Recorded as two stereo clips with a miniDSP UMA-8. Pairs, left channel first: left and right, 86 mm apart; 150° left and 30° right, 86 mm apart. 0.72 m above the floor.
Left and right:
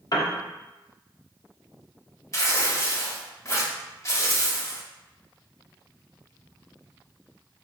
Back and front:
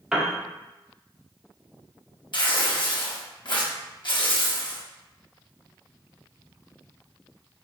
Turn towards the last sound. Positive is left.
turn(degrees=140)